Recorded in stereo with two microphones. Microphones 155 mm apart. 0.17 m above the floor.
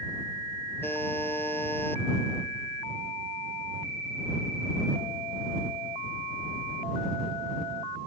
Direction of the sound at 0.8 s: 15° left (ahead or behind).